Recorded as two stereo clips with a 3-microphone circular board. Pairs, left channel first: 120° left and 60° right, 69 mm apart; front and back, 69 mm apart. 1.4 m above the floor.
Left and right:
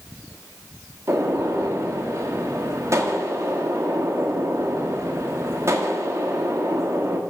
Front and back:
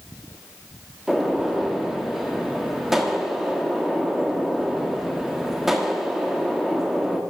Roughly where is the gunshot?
Right.